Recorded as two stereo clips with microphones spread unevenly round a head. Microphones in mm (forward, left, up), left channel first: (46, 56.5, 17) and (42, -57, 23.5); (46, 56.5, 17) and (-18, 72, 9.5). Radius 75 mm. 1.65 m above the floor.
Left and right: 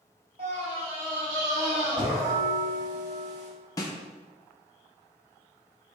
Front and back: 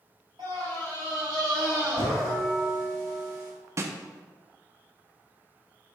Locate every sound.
0.4 s a scream: 145° right, 2.5 m; by 2.3 s 155° right, 4.5 m
2.1 s a bell: 90° right, 2.0 m
3.8 s a snare drum: 145° left, 0.7 m